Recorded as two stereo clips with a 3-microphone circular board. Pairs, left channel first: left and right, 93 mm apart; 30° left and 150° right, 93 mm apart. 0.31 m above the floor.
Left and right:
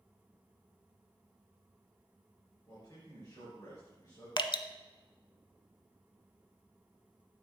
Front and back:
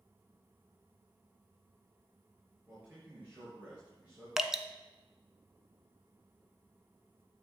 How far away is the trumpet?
I don't hear a trumpet.